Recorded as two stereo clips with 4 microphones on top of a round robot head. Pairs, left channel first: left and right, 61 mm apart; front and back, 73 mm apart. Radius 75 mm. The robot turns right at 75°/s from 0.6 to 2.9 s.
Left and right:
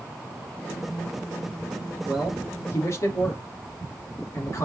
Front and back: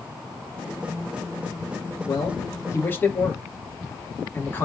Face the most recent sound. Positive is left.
turn(degrees=55)